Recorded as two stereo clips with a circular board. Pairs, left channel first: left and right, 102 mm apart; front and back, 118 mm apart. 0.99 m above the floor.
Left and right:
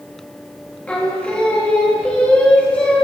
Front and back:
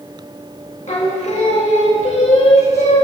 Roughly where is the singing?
Ahead.